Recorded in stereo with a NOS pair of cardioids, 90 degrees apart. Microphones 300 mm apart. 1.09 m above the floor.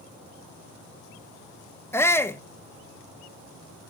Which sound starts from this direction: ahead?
A shout, at 1.9 s.